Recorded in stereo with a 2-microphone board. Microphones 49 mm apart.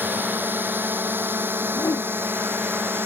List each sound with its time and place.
0.0 s a drone: 45° right (ahead or behind); by 3.1 s 50° right (ahead or behind)
1.7 s a whoosh: 80° left